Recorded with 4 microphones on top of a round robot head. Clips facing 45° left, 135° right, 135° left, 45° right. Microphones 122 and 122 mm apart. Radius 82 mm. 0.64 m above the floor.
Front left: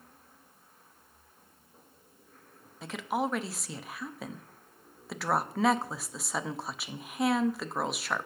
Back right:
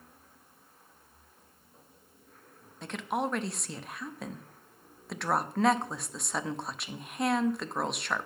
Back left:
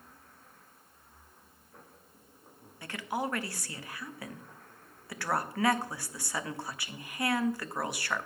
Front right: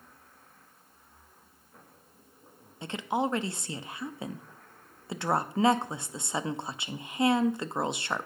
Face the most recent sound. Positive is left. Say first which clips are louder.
# front left 1 dB, front right 5 dB
turn(degrees=-40)